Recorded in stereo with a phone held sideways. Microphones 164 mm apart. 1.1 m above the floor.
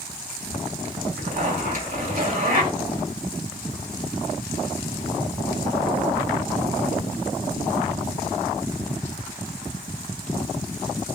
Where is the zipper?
55° right (ahead or behind), 1.5 m.